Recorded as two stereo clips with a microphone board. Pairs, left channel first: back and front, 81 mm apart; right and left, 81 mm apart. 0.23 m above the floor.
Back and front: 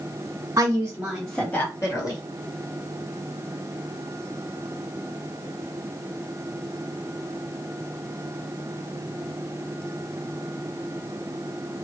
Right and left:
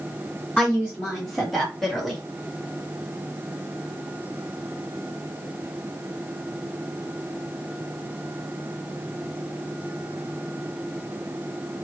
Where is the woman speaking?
Straight ahead, 1.5 m; by 2.2 s 175° right, 1.9 m.